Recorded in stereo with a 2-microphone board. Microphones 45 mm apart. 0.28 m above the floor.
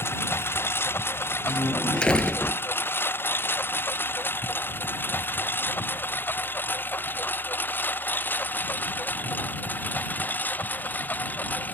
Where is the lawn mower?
55° left (ahead or behind); by 11.7 s 35° left (ahead or behind).